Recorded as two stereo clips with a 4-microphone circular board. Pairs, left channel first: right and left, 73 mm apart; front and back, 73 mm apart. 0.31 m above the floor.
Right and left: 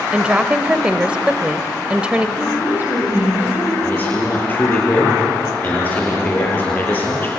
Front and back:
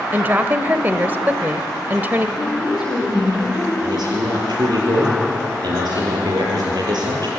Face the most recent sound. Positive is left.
turn(degrees=-155)